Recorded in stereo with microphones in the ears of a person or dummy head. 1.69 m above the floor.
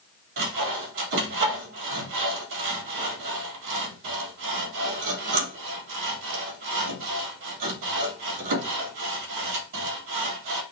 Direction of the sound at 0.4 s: 60° right (ahead or behind).